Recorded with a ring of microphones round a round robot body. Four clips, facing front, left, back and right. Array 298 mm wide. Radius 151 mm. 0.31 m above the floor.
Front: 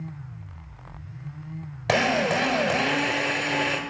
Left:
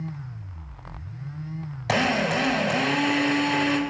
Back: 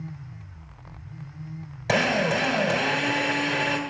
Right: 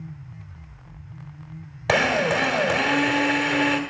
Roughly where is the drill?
Ahead right.